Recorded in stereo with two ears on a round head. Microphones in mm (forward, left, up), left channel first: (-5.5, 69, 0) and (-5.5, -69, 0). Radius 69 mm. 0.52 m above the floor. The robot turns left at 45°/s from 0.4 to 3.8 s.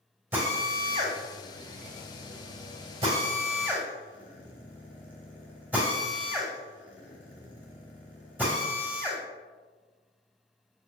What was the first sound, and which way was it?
A drill, 15° right (ahead or behind).